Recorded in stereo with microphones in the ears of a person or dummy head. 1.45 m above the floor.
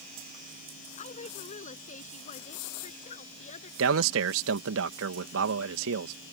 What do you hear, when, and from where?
1.0 s a woman speaking: 40° left (ahead or behind)
3.8 s a man speaking: 80° right